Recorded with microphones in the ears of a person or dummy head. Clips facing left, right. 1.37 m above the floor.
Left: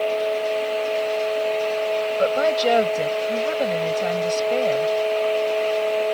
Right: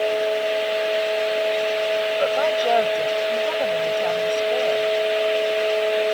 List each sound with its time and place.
2.2 s a woman speaking: 35° left (ahead or behind)